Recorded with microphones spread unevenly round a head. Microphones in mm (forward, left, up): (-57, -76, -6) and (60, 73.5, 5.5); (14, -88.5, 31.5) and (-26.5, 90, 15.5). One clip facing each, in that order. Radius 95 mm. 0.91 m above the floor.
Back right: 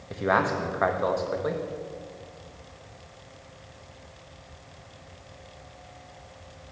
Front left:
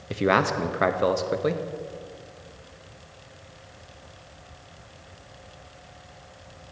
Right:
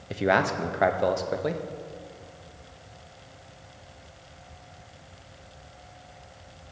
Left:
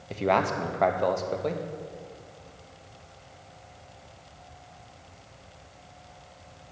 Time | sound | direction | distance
0.1 | a man speaking | 5° left | 0.6 m